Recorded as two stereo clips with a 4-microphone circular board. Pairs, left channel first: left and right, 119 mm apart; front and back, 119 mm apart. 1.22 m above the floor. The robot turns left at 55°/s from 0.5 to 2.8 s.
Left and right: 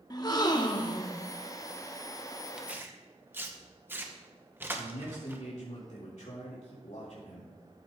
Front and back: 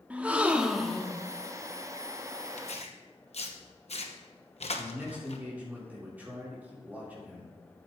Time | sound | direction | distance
0.1 | a gasp | 110° left | 0.8 m
2.6 | tearing paper | 5° right | 1.0 m
4.8 | a man speaking | 105° left | 3 m